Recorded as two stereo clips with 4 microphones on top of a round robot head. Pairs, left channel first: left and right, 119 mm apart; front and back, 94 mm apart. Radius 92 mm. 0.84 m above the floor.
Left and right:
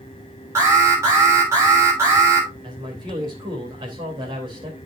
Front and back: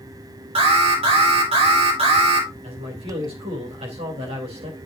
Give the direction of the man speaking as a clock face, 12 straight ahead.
5 o'clock.